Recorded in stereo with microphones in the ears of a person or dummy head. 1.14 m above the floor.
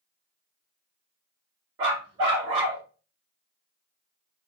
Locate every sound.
1.8 s a dog barking: 20° right (ahead or behind), 0.7 m